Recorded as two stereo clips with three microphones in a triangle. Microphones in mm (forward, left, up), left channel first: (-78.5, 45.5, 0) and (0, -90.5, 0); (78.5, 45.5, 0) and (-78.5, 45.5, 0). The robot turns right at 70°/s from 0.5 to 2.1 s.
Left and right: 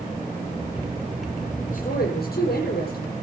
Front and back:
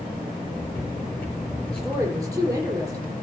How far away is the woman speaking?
About 7 m.